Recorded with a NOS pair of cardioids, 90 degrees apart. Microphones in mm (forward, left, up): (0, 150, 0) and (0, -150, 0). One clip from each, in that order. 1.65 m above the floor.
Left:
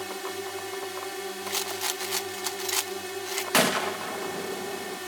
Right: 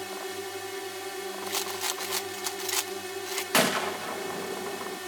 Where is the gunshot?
5° left.